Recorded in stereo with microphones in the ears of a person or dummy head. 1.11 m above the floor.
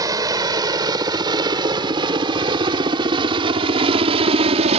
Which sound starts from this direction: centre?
A helicopter, at 0.0 s.